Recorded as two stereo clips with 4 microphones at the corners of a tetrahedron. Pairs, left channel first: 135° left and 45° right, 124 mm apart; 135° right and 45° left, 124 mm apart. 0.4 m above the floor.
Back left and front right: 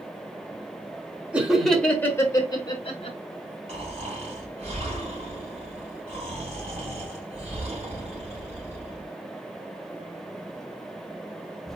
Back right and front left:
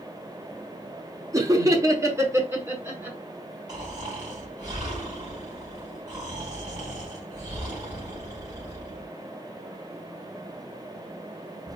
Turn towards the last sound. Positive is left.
turn(degrees=-15)